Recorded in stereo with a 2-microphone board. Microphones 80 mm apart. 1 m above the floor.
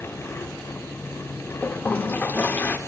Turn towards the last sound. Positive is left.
turn(degrees=25)  # may be behind; listen again after turning